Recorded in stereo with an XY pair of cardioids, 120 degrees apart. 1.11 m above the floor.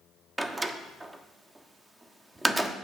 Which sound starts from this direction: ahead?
A door slam, at 0.4 s.